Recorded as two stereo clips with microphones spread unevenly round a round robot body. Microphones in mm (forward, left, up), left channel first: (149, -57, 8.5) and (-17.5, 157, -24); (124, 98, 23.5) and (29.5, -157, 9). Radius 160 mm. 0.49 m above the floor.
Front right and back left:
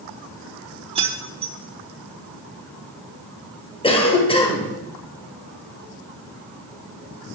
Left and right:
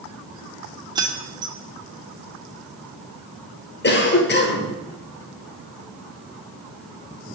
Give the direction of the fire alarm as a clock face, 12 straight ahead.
I don't hear a fire alarm.